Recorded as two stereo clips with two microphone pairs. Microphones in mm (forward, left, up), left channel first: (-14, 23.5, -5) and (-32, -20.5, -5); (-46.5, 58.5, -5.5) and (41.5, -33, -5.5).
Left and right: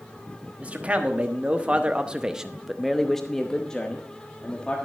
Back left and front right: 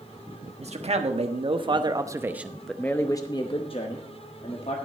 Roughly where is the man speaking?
Ahead right.